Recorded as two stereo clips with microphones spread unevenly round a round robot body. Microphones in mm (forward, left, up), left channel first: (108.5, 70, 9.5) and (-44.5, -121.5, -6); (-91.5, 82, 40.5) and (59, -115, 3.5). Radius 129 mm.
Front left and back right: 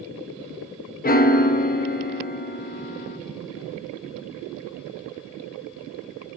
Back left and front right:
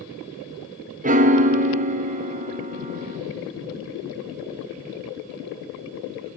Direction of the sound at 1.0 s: Straight ahead.